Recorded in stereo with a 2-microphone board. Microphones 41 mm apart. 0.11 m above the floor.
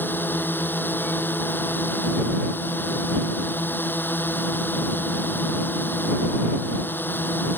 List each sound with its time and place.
0.0 s a drone: 60° left (ahead or behind)